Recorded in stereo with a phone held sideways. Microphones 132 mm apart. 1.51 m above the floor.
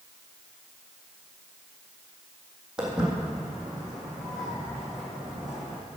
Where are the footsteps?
5° right (ahead or behind), 3 m; by 5.8 s centre (ahead or behind), 4.5 m.